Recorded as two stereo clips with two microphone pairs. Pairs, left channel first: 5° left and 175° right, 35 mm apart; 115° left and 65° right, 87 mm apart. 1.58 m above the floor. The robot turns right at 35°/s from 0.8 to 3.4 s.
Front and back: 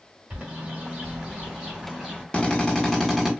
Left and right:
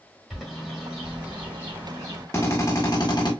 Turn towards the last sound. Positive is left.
turn(degrees=100)